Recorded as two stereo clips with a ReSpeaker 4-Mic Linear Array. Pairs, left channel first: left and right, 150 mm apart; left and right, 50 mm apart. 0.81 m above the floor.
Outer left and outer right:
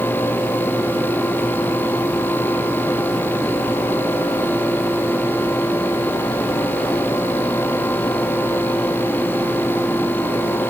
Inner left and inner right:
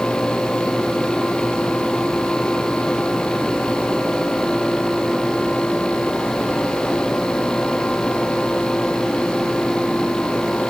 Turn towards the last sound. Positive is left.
No sound to turn to.